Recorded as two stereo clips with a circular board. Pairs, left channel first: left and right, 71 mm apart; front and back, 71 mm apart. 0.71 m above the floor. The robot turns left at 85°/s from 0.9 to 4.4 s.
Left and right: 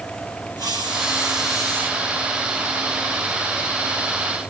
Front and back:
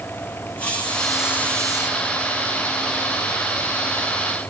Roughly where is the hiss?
Right.